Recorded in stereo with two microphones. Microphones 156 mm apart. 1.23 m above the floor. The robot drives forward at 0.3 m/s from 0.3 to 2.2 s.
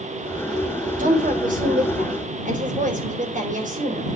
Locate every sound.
1.0 s a woman speaking: 60° right (ahead or behind), 4.5 m; by 4.1 s 55° right (ahead or behind), 5 m